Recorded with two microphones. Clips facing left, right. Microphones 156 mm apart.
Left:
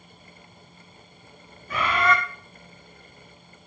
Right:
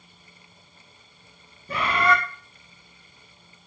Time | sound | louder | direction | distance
1.7 | a bird | even | 35° right (ahead or behind) | 1.1 m